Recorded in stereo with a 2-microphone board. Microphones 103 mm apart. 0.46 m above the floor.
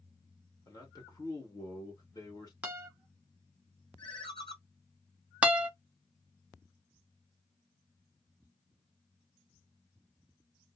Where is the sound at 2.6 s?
15° right (ahead or behind), 1.3 m.